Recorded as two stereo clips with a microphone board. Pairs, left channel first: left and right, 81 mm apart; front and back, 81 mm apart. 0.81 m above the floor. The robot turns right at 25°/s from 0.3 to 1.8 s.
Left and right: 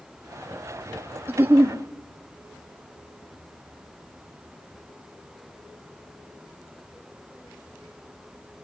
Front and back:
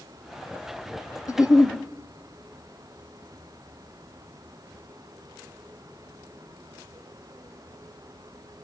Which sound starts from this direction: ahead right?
A giggle, at 1.3 s.